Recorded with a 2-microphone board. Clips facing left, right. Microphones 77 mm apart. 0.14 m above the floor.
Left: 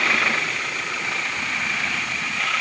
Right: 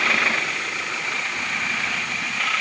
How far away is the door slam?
No door slam in this recording.